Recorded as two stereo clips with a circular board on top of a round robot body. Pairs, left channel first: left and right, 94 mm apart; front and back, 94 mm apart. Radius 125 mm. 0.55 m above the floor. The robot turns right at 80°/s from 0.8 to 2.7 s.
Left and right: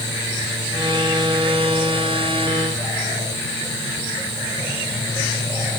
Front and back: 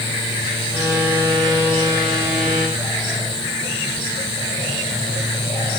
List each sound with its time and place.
Only background noise.